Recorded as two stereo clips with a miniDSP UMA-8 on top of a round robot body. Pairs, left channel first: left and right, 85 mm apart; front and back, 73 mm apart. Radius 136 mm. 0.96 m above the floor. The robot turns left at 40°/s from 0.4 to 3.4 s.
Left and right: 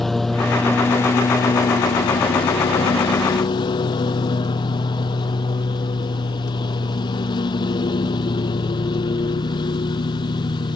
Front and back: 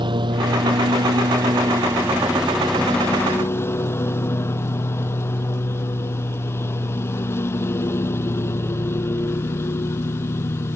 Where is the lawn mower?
Straight behind; by 10.8 s 60° left.